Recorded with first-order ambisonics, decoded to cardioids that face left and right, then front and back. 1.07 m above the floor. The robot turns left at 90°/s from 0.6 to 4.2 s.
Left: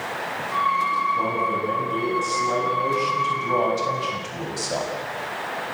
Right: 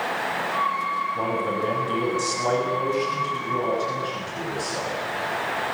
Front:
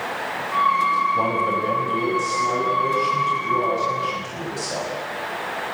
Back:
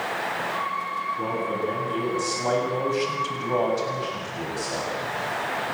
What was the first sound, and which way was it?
A man speaking, 5° right.